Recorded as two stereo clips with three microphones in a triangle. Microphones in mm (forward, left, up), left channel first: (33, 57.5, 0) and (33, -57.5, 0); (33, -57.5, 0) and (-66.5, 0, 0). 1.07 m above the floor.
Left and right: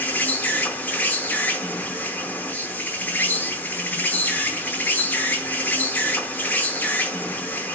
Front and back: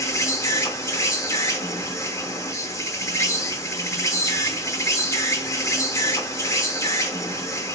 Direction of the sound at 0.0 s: 20° left.